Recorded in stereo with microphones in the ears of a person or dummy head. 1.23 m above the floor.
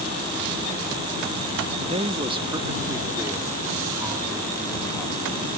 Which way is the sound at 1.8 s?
35° right (ahead or behind).